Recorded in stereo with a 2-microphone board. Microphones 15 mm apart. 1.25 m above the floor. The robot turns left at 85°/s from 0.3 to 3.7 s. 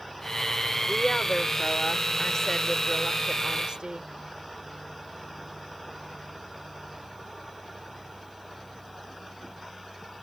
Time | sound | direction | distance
0.9 | a woman speaking | 170° left | ?